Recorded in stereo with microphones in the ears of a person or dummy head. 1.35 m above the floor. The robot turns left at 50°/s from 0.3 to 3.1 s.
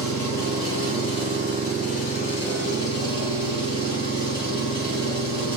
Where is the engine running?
165° left, 1.8 m; by 5.6 s 25° left, 1.8 m.